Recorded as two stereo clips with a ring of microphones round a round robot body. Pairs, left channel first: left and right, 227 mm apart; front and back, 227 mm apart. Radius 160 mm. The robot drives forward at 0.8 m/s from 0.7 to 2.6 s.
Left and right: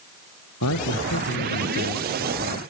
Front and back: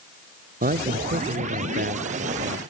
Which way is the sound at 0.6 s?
130° left.